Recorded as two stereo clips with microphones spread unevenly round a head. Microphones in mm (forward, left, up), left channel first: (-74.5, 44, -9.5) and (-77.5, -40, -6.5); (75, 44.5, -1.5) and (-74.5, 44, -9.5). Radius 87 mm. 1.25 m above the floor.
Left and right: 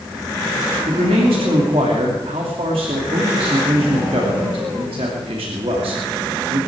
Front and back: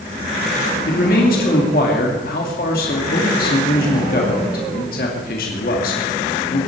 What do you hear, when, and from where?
0.9 s a man speaking: 40° right, 2.5 m